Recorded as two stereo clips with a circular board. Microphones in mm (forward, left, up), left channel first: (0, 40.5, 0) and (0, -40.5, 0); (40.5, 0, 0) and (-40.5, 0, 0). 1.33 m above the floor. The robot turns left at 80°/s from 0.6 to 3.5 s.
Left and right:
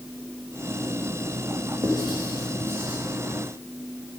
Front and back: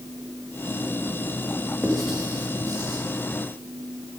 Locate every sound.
1.8 s writing: 75° right, 2.5 m; by 3.0 s 170° right, 2.5 m